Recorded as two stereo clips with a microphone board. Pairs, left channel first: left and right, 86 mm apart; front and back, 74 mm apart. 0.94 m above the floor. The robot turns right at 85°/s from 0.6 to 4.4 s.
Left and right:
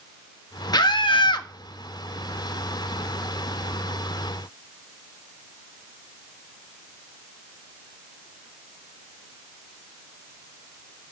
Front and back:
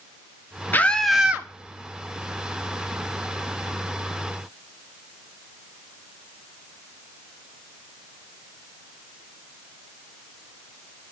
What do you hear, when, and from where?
0.7 s a scream: 60° left, 1.2 m; by 1.5 s 125° left, 1.2 m